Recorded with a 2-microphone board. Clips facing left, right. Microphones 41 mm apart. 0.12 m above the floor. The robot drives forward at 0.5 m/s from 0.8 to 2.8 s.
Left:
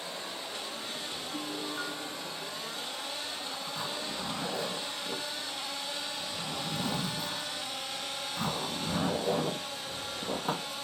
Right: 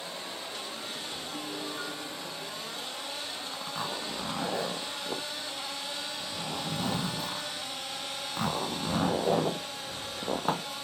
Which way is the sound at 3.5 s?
50° right (ahead or behind).